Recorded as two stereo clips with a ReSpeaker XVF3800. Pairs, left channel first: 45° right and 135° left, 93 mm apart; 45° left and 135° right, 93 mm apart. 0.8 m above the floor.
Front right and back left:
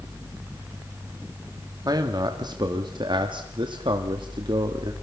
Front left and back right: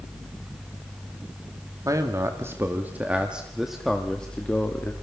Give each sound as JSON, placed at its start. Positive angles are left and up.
{"t": 1.9, "sound": "a man speaking", "azimuth_deg": 175, "distance_m": 1.7}